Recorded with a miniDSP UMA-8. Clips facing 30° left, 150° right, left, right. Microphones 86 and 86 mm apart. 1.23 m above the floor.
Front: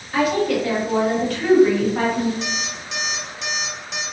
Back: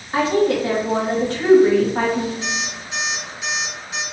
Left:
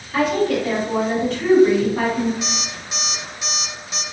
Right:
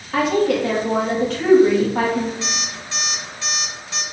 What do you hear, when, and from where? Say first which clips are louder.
0.1 s a woman speaking: back 2 dB, right 1 dB; 85° right, 1.5 m
2.4 s an alarm clock: back 1 dB, even; 20° left, 1.3 m